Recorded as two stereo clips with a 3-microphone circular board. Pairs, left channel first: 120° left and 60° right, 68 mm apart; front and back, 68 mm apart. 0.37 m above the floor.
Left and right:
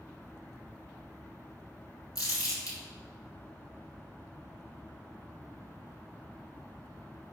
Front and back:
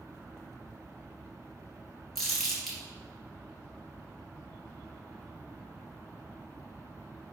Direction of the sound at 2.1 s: 90° left.